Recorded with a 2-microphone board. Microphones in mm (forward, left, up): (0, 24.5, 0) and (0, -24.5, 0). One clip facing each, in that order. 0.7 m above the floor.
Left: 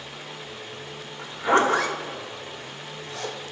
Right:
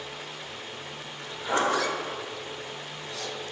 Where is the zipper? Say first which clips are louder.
Left 6 dB; 45° left (ahead or behind), 1.4 m.